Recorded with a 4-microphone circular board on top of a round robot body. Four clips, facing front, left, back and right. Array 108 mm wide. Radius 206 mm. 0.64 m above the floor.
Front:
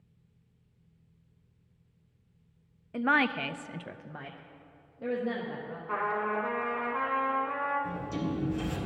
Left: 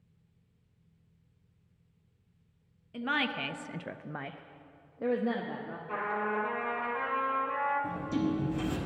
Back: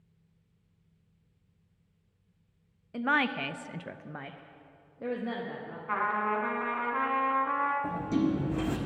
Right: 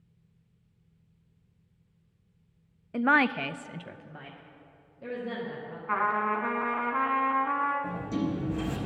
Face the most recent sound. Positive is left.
turn(degrees=175)